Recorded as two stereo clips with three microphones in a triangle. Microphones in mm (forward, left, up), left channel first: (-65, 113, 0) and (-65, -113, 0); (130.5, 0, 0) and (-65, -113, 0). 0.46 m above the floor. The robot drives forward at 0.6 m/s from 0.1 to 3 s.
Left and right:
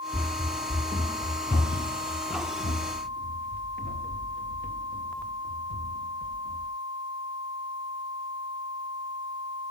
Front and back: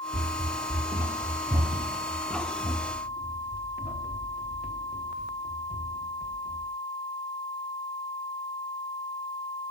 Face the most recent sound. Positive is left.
turn(degrees=110)